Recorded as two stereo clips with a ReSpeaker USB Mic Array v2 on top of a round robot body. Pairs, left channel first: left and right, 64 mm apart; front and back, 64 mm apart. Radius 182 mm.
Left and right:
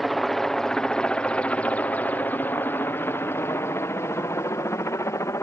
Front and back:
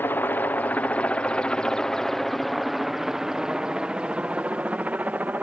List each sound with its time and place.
0.0 s a helicopter: 5° left; by 5.4 s 120° left